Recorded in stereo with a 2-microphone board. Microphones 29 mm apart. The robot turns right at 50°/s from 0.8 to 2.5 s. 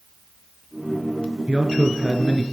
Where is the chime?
I don't hear a chime.